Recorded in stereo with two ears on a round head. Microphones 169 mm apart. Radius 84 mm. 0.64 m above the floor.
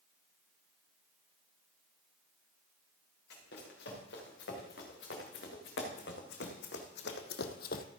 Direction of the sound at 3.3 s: 60° left (ahead or behind).